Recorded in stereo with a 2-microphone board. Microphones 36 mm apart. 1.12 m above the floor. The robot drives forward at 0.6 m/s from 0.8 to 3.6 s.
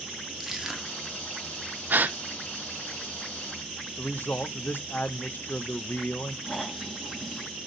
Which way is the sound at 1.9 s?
60° right (ahead or behind).